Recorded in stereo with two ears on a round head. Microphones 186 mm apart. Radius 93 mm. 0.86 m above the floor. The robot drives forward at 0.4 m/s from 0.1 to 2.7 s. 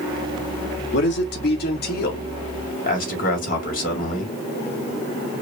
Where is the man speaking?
60° left (ahead or behind), 1.6 m; by 4.3 s 45° left (ahead or behind), 2.0 m.